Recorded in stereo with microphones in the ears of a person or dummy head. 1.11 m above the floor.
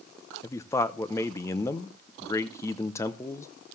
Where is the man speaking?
20° left (ahead or behind), 0.6 m.